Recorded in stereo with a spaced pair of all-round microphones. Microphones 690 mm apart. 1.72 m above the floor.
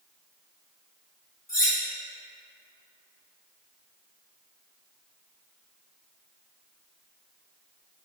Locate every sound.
1.5 s cutlery clinking: 5° left (ahead or behind), 1.3 m